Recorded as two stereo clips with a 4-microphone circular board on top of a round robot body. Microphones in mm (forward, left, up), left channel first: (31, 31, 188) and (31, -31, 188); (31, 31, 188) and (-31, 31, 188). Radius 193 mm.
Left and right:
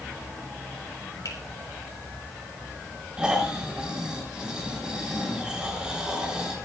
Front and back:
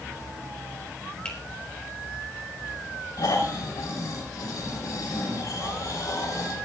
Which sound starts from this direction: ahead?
Snoring, at 3.2 s.